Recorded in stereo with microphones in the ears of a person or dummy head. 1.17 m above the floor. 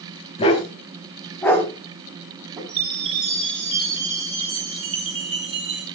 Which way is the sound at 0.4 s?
30° left (ahead or behind).